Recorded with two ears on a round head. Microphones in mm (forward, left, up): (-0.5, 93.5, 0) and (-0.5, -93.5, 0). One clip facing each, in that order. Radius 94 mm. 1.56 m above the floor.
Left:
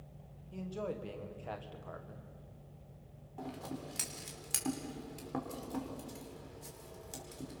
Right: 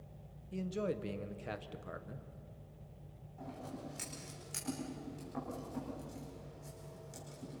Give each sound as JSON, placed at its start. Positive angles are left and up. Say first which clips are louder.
{"t": 0.5, "sound": "a man speaking", "louder": "right 3 dB", "side_deg": -25, "distance_m": 1.4}
{"t": 3.4, "sound": "scissors", "louder": "left 3 dB", "side_deg": 80, "distance_m": 5.0}